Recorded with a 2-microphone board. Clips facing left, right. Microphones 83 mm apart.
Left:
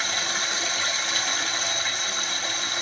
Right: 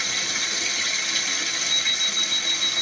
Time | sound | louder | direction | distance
0.0 | running water | left 2 dB | 45° left (ahead or behind) | 1.3 m
1.7 | an alarm clock | left 2 dB | 10° left (ahead or behind) | 0.5 m